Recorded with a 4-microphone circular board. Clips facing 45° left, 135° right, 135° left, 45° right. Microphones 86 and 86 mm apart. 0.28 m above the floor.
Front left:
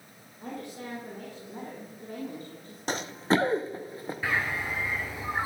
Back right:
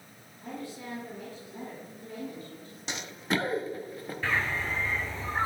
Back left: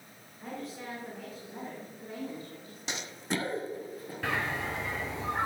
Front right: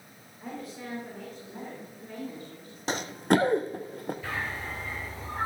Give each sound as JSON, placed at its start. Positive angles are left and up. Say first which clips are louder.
{"t": 0.4, "sound": "a woman speaking", "louder": "front left 1 dB, front right 1 dB", "azimuth_deg": 40, "distance_m": 4.0}
{"t": 2.9, "sound": "running footsteps", "louder": "front left 6 dB, front right 11 dB", "azimuth_deg": 0, "distance_m": 0.6}
{"t": 4.2, "sound": "a bird", "louder": "even, back left 2 dB", "azimuth_deg": 125, "distance_m": 1.6}